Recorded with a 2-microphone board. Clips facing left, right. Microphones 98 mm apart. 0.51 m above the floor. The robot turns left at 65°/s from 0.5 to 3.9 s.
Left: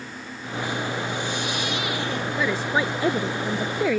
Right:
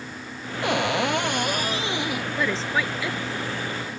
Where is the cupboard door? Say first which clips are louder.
Right 6 dB; 70° right; by 2.3 s 175° right.